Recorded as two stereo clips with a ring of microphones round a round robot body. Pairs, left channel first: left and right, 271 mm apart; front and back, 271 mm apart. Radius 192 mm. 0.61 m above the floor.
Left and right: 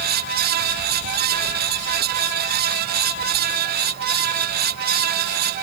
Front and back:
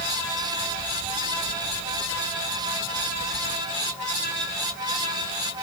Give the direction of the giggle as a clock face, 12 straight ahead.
I don't hear a giggle.